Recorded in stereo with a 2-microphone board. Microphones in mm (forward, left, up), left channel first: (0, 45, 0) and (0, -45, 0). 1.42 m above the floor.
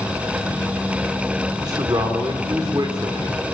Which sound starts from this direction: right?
A man speaking, at 1.6 s.